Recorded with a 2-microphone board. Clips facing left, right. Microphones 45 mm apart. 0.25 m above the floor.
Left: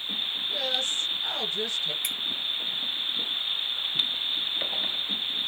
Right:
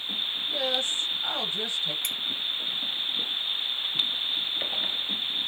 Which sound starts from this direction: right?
A woman speaking, at 0.5 s.